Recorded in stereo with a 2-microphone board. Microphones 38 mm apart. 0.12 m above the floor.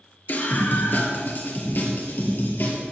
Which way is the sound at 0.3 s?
55° left (ahead or behind).